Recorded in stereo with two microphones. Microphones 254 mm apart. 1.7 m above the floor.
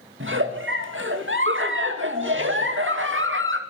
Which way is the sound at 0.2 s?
50° right (ahead or behind).